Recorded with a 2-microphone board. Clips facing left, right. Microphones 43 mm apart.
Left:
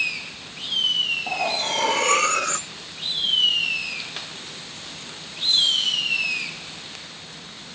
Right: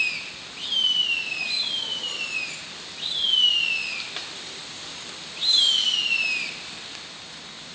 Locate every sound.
1.3 s cutlery clinking: 80° left